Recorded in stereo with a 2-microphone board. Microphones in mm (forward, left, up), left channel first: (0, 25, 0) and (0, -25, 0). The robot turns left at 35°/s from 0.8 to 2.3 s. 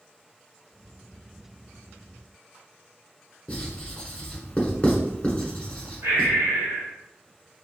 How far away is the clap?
No clap in this recording.